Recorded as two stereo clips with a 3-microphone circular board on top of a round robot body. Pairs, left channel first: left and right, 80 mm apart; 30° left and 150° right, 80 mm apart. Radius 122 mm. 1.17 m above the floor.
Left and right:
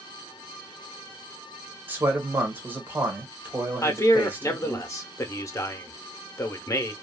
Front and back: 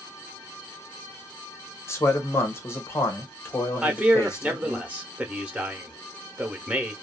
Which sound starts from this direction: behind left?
A man speaking, at 3.8 s.